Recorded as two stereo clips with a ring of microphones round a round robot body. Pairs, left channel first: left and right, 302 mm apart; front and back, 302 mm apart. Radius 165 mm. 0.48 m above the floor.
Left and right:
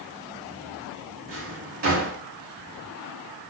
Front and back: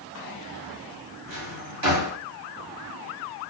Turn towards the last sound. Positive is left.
turn(degrees=-155)